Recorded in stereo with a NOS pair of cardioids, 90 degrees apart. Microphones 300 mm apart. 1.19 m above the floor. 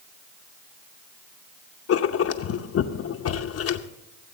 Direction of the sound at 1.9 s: 55° left.